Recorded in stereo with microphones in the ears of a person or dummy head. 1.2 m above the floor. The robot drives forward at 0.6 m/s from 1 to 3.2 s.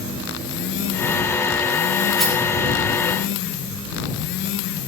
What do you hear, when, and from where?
2.2 s a rattle: centre (ahead or behind), 1.2 m